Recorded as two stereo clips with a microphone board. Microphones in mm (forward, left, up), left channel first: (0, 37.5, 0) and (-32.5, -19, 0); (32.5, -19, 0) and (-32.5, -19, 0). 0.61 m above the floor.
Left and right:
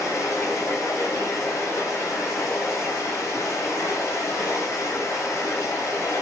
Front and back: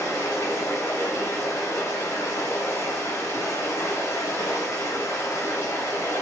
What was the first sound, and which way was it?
Running water, 25° left.